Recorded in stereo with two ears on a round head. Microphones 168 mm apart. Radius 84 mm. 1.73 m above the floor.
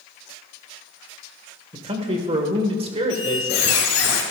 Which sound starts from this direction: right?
A man speaking, at 1.7 s.